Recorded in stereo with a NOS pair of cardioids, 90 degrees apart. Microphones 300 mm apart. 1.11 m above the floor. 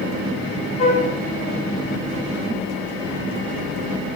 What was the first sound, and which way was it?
A flute, 25° left.